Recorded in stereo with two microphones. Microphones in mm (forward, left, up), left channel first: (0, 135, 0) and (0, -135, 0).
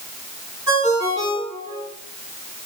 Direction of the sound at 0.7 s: 90° right.